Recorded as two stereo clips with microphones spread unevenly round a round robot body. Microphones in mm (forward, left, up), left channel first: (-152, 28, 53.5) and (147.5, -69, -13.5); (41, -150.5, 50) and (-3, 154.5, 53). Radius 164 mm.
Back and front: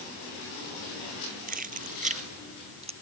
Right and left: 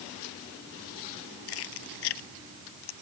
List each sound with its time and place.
1.5 s keys jangling: 85° right; by 2.9 s 90° right